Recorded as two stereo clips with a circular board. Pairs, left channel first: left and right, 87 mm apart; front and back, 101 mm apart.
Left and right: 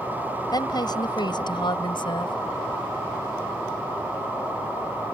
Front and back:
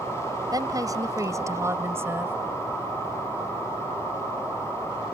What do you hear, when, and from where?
0.5 s a woman speaking: 130° left; by 2.4 s 110° left